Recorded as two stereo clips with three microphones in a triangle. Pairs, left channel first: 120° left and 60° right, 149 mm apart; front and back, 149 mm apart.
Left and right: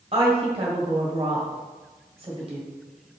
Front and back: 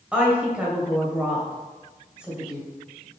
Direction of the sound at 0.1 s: 100° right.